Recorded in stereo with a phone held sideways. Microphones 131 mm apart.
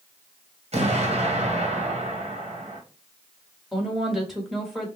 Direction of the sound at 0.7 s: 50° right (ahead or behind).